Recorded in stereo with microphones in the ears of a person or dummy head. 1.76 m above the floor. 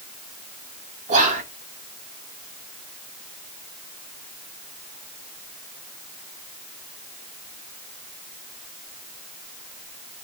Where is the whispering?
35° right (ahead or behind), 0.5 m.